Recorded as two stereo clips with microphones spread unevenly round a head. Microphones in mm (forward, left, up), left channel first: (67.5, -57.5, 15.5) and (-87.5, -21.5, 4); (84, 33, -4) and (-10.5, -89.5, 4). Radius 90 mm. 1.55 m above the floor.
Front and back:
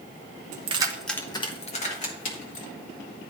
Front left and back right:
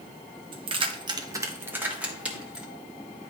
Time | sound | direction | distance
0.5 | keys jangling | 170° right | 0.9 m